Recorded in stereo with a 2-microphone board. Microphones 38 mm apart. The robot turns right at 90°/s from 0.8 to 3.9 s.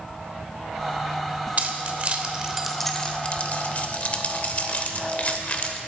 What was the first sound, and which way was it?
Keys jangling, 40° right (ahead or behind).